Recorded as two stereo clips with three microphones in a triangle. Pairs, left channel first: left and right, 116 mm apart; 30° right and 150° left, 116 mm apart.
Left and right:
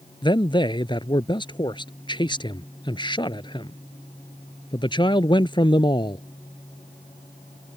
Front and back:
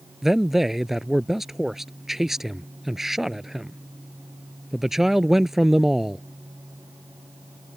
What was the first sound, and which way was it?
A man speaking, 65° left.